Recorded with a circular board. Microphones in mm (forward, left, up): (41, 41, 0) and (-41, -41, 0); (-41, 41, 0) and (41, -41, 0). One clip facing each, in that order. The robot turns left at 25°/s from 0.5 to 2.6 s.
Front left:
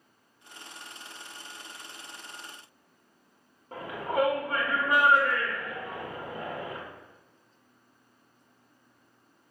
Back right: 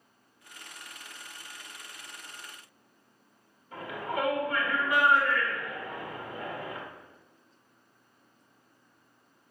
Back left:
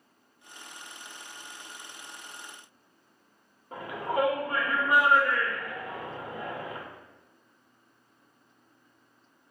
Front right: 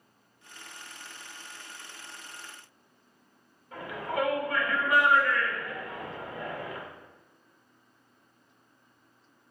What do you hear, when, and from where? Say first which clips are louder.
3.7 s a shout: front left 4 dB, back left 3 dB; 80° left, 1.4 m